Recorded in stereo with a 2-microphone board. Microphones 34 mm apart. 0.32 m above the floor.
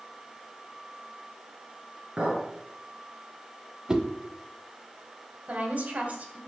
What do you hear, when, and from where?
2.2 s a clink: 40° right (ahead or behind), 3.5 m
3.9 s a whoosh: 20° right (ahead or behind), 0.7 m
5.5 s a woman speaking: 50° right (ahead or behind), 1.5 m